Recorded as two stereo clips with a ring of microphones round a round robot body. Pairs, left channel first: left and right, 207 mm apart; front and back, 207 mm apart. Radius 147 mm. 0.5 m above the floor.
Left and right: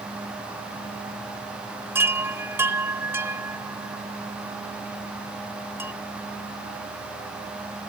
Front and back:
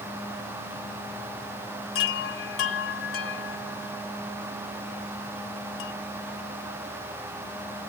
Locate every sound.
1.9 s a chime: 10° right